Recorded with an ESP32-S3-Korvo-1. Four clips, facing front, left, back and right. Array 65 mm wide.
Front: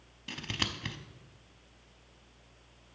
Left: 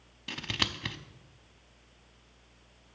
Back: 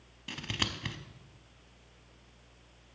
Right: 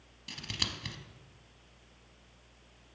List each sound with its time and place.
0.3 s scissors: 100° left, 0.6 m